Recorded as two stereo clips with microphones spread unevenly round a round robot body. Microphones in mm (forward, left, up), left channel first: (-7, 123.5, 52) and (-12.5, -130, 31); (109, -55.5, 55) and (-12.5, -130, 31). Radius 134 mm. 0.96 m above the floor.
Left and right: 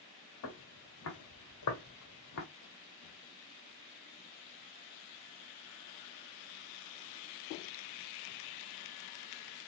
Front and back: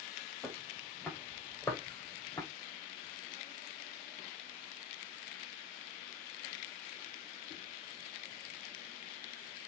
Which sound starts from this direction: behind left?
Footsteps, at 0.4 s.